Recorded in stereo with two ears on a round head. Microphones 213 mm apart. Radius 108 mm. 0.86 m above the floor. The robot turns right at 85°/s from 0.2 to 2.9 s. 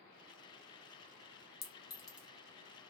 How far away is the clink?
About 0.7 m.